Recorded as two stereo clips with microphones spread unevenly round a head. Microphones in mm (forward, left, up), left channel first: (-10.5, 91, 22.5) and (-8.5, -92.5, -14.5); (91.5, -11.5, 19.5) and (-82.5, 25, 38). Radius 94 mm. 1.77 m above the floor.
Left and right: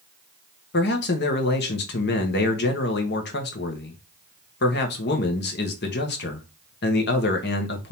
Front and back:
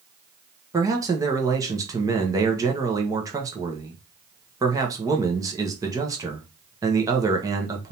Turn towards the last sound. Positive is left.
turn(degrees=100)